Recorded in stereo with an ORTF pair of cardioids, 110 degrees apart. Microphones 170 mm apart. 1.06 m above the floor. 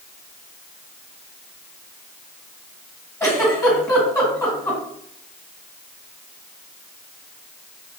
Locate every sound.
3.2 s a giggle: 15° left, 1.3 m